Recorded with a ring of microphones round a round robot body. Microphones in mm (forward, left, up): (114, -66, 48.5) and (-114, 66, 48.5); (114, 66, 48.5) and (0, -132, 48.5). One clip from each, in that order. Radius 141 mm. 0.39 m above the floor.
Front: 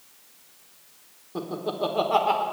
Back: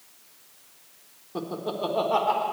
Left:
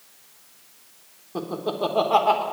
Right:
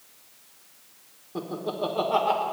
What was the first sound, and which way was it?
Laughter, 75° left.